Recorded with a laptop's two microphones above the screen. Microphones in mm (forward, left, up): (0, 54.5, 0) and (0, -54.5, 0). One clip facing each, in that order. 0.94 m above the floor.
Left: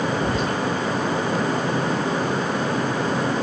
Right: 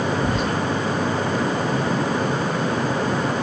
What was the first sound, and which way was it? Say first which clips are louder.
Whispering: even; 65° right (ahead or behind).